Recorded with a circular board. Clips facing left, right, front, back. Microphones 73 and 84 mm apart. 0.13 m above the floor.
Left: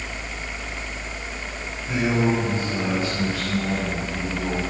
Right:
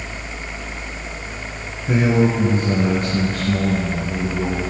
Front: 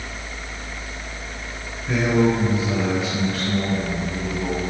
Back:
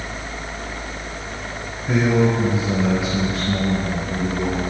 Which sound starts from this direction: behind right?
A man speaking, at 1.9 s.